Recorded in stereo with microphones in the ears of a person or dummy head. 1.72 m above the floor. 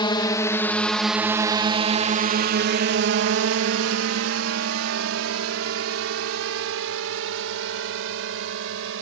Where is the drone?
25° left (ahead or behind); by 9.0 s 85° right.